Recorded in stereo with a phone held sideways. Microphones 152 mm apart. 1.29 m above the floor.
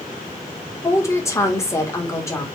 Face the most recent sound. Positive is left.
turn(degrees=20)  # may be behind; listen again after turning